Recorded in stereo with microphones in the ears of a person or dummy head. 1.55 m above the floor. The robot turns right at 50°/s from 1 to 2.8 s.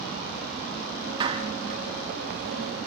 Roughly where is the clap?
Right.